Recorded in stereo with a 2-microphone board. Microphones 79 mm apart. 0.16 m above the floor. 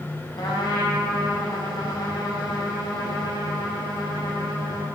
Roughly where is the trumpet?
Left.